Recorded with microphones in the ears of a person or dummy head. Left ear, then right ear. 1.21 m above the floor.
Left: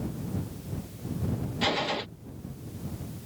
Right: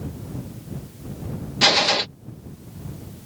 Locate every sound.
1.6 s a gunshot: 35° right (ahead or behind)